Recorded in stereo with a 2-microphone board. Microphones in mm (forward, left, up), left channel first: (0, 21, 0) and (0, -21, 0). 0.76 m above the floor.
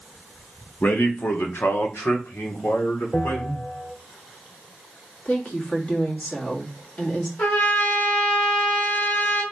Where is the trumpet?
60° left (ahead or behind), 1.9 m.